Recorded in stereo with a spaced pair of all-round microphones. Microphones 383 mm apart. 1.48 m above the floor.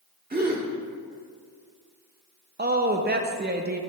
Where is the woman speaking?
25° right (ahead or behind), 0.5 m.